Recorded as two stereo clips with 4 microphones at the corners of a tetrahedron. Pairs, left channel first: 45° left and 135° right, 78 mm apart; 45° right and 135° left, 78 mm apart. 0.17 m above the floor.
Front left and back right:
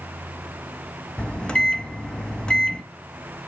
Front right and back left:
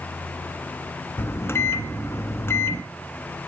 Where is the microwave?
25° right, 1.0 m.